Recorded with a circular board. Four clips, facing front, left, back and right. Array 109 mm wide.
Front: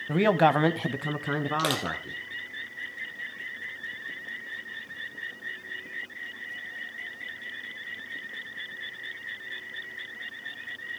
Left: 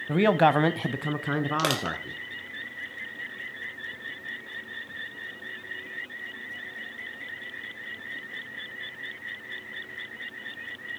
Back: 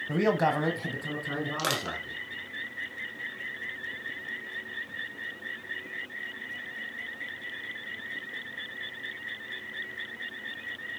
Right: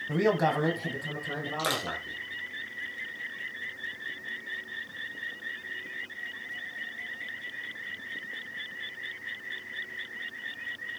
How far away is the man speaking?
About 1.0 m.